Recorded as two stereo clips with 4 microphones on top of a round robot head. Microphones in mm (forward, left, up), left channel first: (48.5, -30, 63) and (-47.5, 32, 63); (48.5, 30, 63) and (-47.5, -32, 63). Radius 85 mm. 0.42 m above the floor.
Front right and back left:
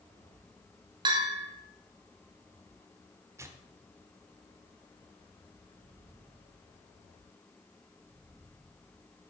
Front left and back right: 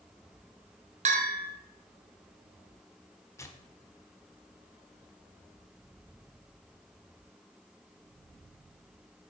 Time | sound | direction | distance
1.1 | a bell | 160° right | 1.5 m
3.4 | tearing paper | 90° left | 1.3 m